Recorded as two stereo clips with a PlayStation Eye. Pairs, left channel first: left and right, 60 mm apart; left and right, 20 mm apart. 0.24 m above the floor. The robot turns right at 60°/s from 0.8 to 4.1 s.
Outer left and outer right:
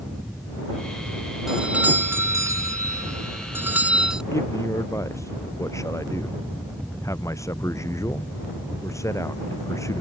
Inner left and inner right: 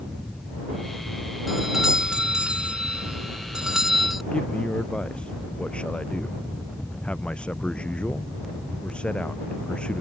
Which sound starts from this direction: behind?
A doorbell, at 1.5 s.